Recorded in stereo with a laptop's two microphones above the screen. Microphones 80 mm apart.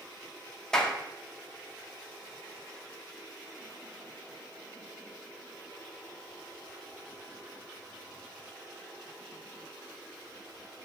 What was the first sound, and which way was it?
A clap, 10° left (ahead or behind).